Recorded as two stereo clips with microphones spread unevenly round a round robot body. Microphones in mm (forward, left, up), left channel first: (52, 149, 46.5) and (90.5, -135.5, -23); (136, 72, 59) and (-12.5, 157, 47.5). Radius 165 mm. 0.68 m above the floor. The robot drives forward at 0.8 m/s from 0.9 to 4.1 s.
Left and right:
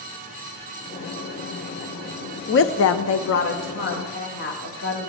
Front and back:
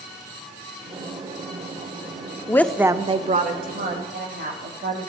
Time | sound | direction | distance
2.5 | a woman speaking | 45° left | 0.6 m